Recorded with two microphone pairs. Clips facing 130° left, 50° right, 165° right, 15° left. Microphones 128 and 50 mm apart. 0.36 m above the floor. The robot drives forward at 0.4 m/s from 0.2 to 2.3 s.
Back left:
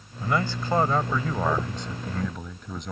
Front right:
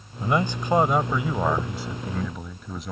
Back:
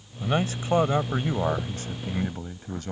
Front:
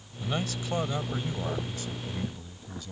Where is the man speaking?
110° right; by 2.9 s 135° right.